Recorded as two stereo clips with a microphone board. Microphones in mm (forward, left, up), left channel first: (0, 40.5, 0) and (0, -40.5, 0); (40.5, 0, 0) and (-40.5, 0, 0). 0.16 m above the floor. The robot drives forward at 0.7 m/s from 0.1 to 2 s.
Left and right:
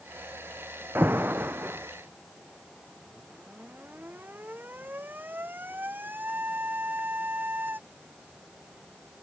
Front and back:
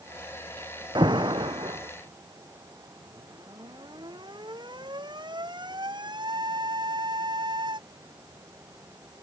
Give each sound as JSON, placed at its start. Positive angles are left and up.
{"t": 0.9, "sound": "an alarm", "azimuth_deg": -155}